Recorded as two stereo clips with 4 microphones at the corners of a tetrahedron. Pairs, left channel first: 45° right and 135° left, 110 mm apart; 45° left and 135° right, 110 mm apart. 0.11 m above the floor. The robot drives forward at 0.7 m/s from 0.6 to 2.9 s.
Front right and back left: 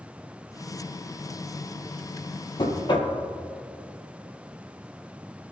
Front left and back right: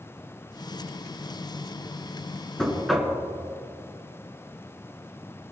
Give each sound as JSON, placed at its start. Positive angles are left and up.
{"t": 2.6, "sound": "knocking", "azimuth_deg": -40, "distance_m": 1.9}